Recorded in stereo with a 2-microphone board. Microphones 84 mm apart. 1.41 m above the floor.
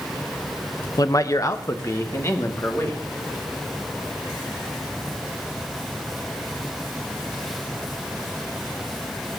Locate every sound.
1.0 s a man speaking: 45° left (ahead or behind), 0.5 m; by 3.0 s 30° left (ahead or behind), 2 m